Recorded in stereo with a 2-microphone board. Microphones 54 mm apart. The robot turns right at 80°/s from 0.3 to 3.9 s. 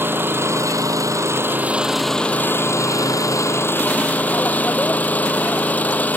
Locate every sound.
0.0 s an engine running: 140° right; by 6.2 s 150° left